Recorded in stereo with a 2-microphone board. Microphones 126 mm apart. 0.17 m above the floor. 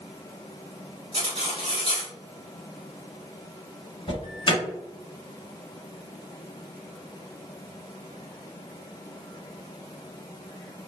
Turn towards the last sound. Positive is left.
turn(degrees=35)  # may be behind; listen again after turning